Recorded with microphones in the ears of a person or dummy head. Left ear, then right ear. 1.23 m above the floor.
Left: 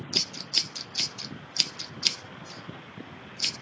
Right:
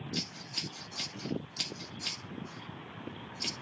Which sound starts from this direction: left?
Scissors, at 0.1 s.